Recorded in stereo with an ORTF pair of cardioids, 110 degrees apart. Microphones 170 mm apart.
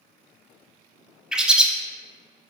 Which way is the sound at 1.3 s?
5° right.